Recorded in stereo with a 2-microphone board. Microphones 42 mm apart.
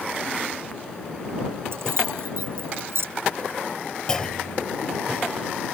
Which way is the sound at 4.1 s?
15° left (ahead or behind).